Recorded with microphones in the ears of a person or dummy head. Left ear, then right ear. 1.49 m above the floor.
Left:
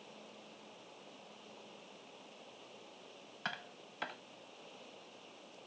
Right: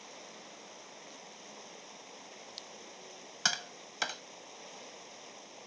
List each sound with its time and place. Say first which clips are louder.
0.0 s running water: right 5 dB; 60° right (ahead or behind)
3.5 s tapping: right 10 dB; 85° right